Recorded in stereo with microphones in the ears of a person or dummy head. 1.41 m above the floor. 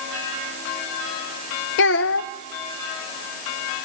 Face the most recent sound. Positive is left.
turn(degrees=60)  # may be behind; listen again after turning